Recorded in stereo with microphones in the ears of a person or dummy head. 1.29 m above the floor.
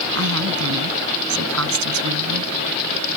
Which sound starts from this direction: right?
A woman speaking, at 0.1 s.